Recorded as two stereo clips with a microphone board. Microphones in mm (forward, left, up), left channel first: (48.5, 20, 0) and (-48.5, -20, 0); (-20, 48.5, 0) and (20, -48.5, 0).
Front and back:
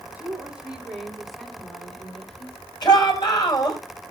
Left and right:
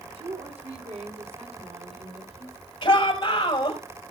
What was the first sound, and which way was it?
A woman speaking, 85° right.